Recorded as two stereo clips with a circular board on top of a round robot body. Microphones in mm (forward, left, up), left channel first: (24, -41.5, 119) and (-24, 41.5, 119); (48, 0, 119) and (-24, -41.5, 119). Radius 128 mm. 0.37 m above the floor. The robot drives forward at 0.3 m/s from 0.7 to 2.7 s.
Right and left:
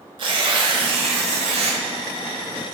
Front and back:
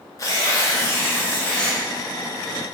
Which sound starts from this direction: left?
Tearing paper, at 0.2 s.